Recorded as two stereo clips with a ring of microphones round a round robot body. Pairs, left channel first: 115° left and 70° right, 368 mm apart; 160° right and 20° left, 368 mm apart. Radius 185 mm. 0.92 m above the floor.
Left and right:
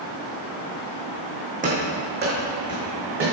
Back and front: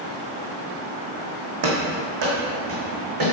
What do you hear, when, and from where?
1.6 s running footsteps: straight ahead, 2 m; by 3.3 s 10° right, 3 m